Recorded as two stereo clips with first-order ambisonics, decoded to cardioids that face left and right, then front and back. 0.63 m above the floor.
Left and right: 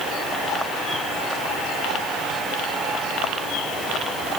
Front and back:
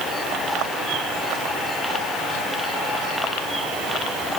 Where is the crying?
I don't hear crying.